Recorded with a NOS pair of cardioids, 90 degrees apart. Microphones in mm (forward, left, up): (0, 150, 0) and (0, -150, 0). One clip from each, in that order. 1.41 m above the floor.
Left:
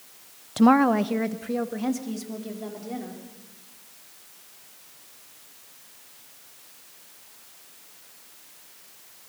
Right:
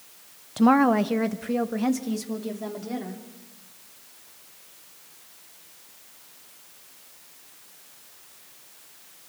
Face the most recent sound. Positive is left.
turn(degrees=-25)